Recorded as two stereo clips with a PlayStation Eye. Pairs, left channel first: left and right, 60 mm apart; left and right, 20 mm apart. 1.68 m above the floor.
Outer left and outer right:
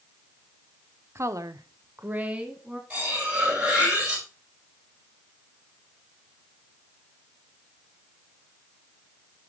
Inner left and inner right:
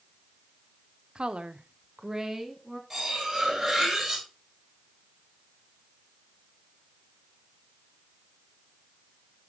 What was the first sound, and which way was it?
A woman speaking, 45° right (ahead or behind).